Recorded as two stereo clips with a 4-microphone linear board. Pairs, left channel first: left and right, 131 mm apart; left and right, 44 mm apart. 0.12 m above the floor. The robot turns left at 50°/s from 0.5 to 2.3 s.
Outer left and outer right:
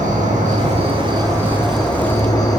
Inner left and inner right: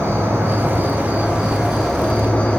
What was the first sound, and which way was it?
An insect, 115° right.